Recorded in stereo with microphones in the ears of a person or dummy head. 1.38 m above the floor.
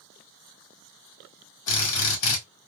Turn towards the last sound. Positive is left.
turn(degrees=70)  # may be behind; listen again after turning